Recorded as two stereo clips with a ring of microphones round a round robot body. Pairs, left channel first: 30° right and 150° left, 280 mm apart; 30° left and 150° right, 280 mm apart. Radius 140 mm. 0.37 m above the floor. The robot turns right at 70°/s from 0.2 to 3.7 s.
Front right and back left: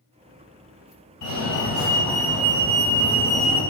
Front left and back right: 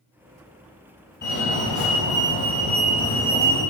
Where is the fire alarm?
20° right, 3.5 m; by 3.6 s 150° left, 3.5 m.